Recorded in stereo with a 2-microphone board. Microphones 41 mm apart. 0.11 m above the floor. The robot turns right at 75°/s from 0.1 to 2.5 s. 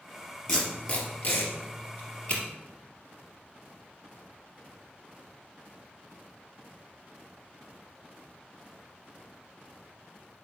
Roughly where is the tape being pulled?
Centre.